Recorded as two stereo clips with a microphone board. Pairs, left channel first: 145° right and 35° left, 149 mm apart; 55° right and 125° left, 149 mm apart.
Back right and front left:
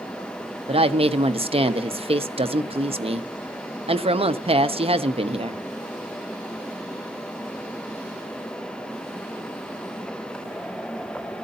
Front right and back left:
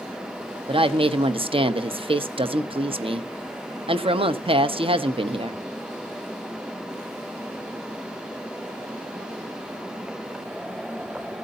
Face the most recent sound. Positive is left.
turn(degrees=80)